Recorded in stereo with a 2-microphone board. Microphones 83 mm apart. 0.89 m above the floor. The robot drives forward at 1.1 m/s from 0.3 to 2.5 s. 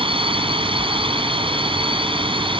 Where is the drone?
85° right; by 2.6 s 75° right (ahead or behind).